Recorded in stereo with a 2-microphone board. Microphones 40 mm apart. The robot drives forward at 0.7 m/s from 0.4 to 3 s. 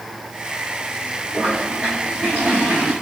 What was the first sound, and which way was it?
A toilet flushing, 30° right (ahead or behind).